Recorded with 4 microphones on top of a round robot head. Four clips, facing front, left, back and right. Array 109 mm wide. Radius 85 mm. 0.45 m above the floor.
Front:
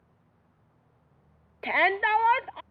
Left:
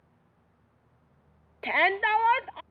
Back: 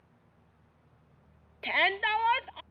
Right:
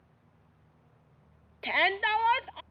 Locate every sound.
1.6 s a shout: 35° left